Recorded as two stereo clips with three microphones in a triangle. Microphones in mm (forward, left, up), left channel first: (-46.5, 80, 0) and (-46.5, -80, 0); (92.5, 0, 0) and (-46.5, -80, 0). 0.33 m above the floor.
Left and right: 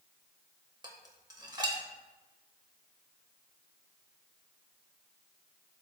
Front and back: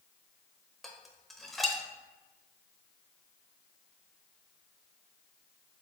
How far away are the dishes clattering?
About 0.7 m.